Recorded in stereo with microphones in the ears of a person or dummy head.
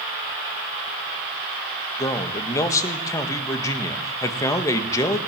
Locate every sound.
2.0 s a man speaking: 15° left (ahead or behind), 1.8 m